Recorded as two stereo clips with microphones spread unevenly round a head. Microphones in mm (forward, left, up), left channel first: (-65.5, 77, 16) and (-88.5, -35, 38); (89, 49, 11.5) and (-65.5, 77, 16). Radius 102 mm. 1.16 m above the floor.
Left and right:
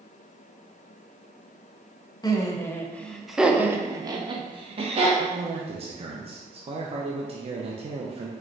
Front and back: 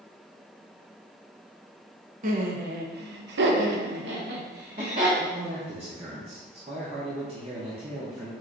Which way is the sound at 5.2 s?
135° right.